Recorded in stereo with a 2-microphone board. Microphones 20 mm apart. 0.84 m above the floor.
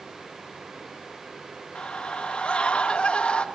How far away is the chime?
No chime in this recording.